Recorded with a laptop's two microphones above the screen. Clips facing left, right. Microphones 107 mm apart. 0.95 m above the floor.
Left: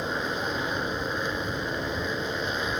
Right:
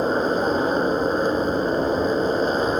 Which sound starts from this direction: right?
A motorcycle, at 0.0 s.